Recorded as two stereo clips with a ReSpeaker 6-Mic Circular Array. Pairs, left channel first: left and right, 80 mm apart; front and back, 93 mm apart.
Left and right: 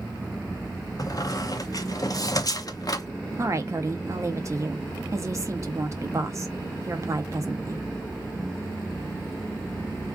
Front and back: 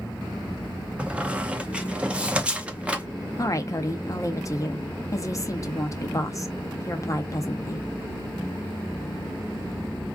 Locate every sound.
1.0 s a squeak: 105° left, 0.5 m
3.4 s a woman speaking: 45° right, 0.7 m